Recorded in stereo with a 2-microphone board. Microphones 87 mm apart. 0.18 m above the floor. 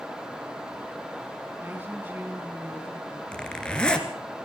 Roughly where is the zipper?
Centre.